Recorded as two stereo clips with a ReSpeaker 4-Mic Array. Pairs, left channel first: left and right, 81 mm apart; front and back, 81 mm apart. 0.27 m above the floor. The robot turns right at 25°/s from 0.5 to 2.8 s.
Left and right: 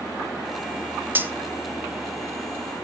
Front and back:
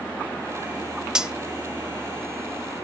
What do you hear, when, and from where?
1.1 s cutlery clinking: 110° right, 0.5 m; by 1.3 s 105° right, 0.5 m